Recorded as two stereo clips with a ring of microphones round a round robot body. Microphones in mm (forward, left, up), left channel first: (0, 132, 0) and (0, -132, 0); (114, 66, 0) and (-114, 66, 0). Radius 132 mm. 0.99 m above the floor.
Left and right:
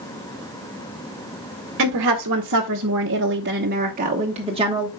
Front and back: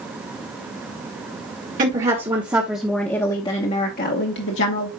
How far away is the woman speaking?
About 1.2 m.